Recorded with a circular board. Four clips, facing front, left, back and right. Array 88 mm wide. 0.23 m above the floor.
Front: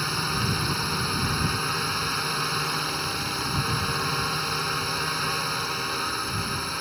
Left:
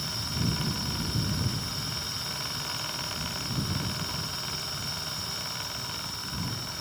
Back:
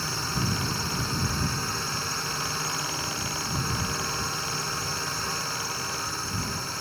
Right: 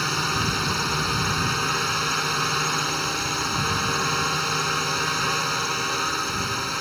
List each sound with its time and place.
0.0 s a drone: 75° right